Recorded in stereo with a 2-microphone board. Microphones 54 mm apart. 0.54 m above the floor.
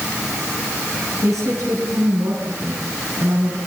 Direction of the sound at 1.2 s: 70° right (ahead or behind).